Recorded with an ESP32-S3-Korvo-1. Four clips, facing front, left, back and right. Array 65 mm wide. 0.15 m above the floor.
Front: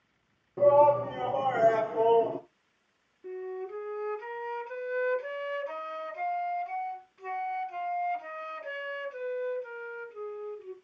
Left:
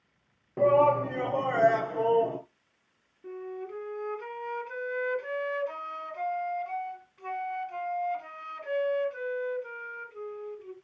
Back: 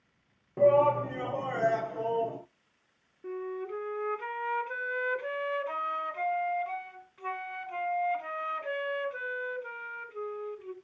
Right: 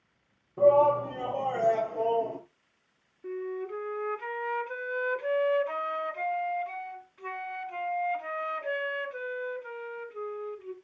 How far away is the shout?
About 3 m.